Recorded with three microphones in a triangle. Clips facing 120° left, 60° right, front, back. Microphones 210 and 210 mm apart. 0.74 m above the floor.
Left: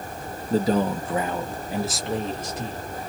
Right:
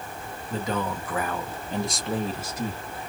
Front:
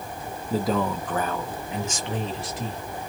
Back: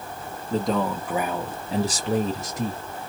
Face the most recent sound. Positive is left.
turn(degrees=-135)